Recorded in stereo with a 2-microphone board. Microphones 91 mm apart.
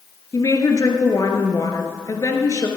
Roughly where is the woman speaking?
Left.